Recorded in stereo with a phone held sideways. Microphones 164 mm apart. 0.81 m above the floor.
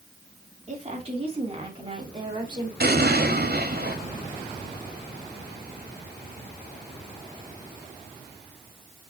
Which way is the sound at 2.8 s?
70° right (ahead or behind).